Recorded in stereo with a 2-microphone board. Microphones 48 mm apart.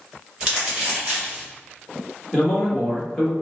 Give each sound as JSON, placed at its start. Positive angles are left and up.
{"t": 0.4, "sound": "crumpling", "side_deg": -15, "distance_m": 1.6}
{"t": 2.3, "sound": "a man speaking", "side_deg": 15, "distance_m": 1.1}